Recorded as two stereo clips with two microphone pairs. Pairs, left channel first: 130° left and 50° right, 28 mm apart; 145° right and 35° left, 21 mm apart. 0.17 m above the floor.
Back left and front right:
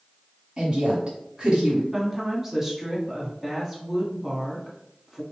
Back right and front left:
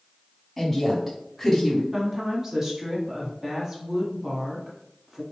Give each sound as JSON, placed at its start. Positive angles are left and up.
{"t": 0.6, "sound": "a woman speaking", "azimuth_deg": -45, "distance_m": 1.2}
{"t": 1.9, "sound": "a woman speaking", "azimuth_deg": 15, "distance_m": 1.1}